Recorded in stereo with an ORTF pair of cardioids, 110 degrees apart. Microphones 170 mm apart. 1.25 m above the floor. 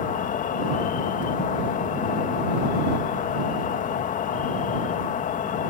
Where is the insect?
50° left.